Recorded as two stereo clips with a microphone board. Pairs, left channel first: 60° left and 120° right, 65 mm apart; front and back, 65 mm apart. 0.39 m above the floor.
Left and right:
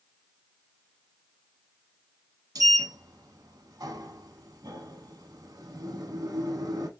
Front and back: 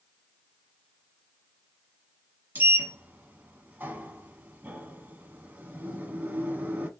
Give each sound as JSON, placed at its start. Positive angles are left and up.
{"t": 2.5, "sound": "a sliding door", "azimuth_deg": -120, "distance_m": 0.9}